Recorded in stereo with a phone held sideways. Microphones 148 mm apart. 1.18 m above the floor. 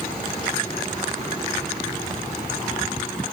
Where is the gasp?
No gasp in this recording.